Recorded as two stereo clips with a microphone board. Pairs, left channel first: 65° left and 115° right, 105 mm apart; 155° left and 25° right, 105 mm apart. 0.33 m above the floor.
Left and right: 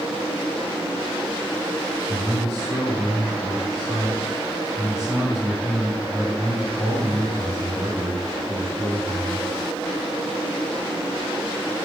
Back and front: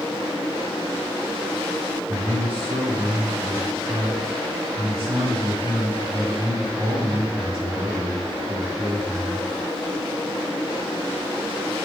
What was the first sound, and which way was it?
A man speaking, 45° right.